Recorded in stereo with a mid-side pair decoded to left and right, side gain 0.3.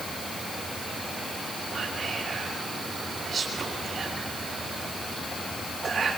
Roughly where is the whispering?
Ahead right.